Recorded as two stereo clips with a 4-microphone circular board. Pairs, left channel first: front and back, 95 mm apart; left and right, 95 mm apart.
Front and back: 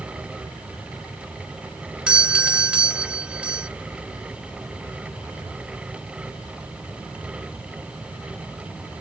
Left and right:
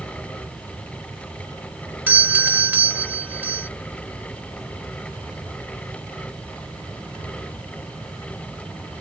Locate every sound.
2.1 s a doorbell: 125° right